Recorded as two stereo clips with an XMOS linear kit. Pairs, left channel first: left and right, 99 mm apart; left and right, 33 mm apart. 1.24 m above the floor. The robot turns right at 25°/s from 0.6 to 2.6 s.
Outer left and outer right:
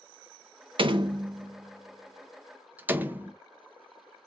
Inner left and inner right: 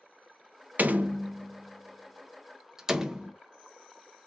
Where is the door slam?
55° right (ahead or behind), 0.6 m; by 3.3 s 15° right (ahead or behind), 0.6 m.